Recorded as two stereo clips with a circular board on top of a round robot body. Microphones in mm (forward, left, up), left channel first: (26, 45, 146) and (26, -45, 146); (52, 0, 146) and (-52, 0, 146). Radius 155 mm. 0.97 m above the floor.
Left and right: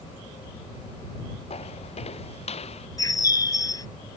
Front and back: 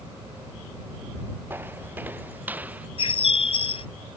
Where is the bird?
35° left.